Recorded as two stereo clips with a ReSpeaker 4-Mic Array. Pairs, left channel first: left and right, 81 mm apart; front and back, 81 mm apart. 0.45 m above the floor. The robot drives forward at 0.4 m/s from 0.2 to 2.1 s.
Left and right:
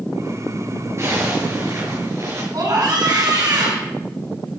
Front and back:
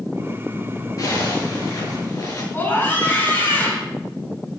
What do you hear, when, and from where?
1.0 s a zipper: 40° right, 5 m
2.5 s a scream: 60° right, 5.5 m